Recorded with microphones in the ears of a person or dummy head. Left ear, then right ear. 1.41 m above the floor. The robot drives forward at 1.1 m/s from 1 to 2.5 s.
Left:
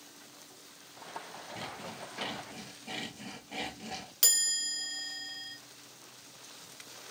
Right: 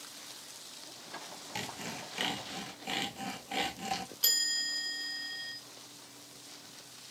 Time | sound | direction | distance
1.6 | sawing | 70° right (ahead or behind) | 1.2 m
4.2 | a chime | 45° left (ahead or behind) | 1.8 m